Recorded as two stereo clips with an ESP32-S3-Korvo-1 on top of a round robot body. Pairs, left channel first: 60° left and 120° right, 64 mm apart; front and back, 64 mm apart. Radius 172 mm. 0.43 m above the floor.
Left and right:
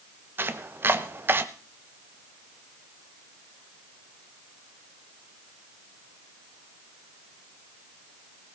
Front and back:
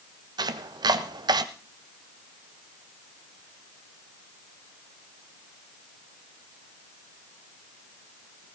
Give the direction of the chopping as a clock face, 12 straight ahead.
6 o'clock.